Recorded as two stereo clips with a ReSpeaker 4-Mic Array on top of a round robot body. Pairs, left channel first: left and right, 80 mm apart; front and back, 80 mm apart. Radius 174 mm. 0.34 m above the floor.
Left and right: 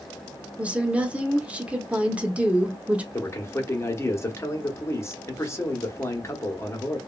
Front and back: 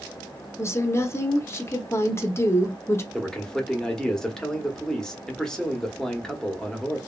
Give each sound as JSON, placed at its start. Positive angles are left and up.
{"t": 0.6, "sound": "a woman speaking", "azimuth_deg": -25, "distance_m": 0.9}
{"t": 3.1, "sound": "a man speaking", "azimuth_deg": 75, "distance_m": 1.1}